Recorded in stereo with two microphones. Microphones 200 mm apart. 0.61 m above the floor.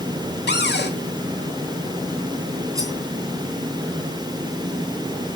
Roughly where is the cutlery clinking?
Centre.